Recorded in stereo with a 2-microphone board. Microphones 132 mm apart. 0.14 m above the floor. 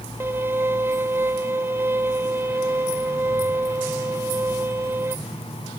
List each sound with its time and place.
0.2 s a violin: 15° right (ahead or behind)